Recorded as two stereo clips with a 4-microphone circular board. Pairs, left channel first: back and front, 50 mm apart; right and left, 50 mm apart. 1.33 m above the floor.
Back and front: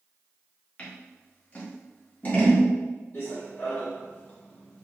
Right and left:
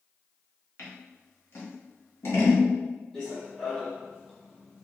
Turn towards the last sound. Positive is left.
turn(degrees=165)